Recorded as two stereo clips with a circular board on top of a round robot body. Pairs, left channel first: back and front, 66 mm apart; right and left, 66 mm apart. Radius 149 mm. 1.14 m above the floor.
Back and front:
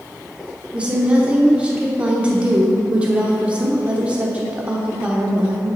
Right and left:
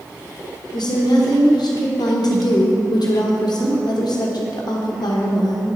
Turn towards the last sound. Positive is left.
turn(degrees=-75)